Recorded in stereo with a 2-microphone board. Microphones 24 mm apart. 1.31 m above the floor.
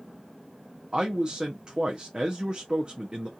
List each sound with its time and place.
0.9 s a man speaking: 40° right (ahead or behind), 0.6 m